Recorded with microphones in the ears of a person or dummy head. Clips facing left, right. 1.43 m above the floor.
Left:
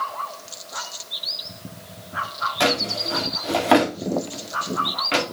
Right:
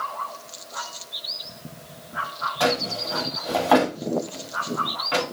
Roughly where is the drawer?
Left.